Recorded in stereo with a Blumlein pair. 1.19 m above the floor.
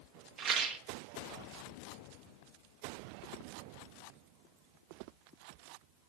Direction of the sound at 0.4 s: 35° right.